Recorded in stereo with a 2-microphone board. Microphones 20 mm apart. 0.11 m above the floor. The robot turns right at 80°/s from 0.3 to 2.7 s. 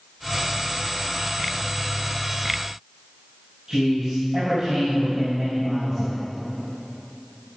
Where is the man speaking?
25° right (ahead or behind), 4 m.